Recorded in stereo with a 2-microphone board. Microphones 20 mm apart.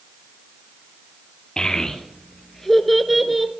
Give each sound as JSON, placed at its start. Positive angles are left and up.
{"t": 1.6, "sound": "a child speaking", "side_deg": 35, "distance_m": 1.3}